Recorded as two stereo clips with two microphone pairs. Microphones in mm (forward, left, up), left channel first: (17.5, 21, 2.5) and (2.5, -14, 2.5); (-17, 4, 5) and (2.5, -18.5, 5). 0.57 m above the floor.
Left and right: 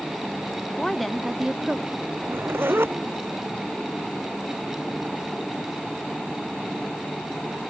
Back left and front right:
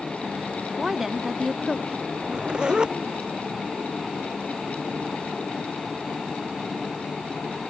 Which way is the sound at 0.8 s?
10° left.